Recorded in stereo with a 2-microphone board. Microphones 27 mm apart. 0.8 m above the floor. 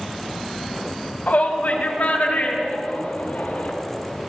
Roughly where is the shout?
Left.